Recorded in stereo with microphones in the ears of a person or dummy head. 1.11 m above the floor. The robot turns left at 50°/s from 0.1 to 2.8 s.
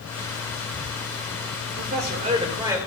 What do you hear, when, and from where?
1.7 s a man speaking: 115° right, 1.9 m; by 2.9 s 170° right, 1.9 m